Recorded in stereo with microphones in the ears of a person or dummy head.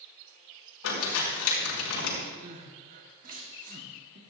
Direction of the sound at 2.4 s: 45° right (ahead or behind).